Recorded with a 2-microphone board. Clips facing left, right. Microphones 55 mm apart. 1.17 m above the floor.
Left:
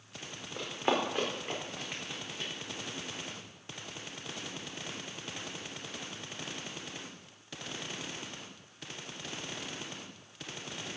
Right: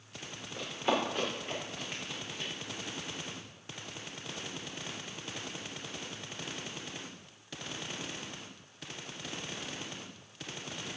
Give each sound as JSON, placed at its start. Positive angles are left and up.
{"t": 0.6, "sound": "running footsteps", "side_deg": 35, "distance_m": 3.5}